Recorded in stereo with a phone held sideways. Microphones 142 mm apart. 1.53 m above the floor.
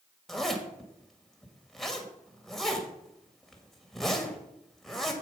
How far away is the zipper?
About 2.0 m.